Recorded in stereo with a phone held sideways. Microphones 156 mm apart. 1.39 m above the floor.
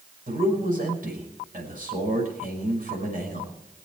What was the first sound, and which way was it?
A man speaking, 60° right (ahead or behind).